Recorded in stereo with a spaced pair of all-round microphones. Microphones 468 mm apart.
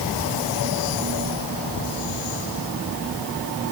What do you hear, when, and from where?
Only background noise.